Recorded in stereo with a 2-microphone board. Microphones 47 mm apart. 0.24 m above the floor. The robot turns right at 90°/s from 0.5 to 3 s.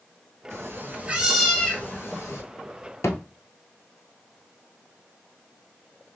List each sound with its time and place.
0.5 s a cat meowing: 85° right, 1.3 m; by 2.4 s 90° left, 1.3 m
3.0 s a thud: 80° left, 1.0 m